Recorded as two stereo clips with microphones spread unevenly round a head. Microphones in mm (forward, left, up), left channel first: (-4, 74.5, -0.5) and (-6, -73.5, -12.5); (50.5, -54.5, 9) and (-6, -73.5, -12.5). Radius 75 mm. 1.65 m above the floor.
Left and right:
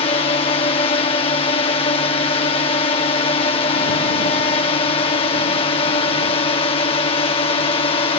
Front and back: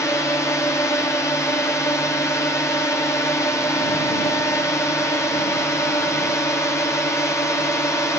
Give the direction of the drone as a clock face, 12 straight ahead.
10 o'clock.